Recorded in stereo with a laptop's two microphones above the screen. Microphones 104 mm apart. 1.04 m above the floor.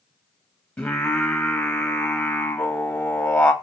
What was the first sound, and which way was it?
Singing, 15° left (ahead or behind).